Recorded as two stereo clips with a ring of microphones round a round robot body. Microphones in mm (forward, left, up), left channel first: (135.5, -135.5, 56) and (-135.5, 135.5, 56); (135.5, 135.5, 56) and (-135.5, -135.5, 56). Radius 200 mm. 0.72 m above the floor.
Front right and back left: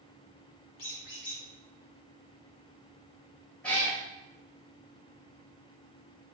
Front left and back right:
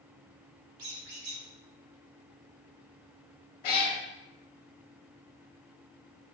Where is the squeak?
85° right, 1.0 m.